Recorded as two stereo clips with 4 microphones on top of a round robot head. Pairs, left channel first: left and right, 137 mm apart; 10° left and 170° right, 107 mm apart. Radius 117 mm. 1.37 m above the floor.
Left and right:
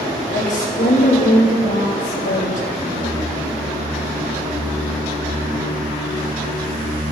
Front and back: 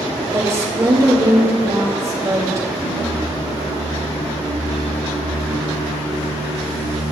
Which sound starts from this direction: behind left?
A woman speaking, at 0.3 s.